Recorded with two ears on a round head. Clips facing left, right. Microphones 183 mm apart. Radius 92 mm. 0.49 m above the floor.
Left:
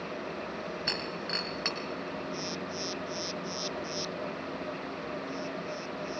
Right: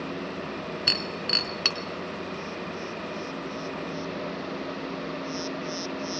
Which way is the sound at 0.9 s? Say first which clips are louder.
Right 4 dB; 45° right (ahead or behind).